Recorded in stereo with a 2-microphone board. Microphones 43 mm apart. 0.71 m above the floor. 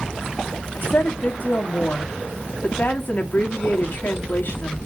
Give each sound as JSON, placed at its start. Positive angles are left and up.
{"t": 0.8, "sound": "a woman speaking", "side_deg": 50, "distance_m": 1.4}